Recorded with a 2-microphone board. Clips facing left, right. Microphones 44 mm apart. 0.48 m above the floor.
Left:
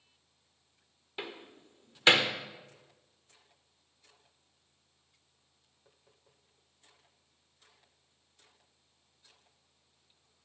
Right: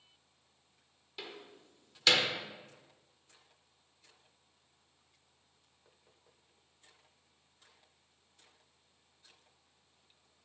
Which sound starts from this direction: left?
A door slam, at 1.2 s.